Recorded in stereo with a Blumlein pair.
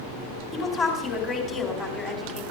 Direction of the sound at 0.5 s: 25° left.